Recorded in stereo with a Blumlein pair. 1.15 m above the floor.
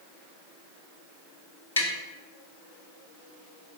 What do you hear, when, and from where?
1.8 s tapping: 70° left, 0.7 m